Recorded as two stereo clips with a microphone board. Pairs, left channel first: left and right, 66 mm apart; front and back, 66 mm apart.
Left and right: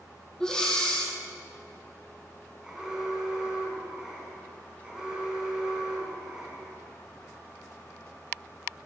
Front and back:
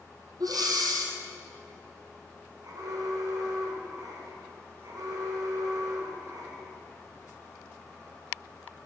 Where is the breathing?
170° left, 3 m.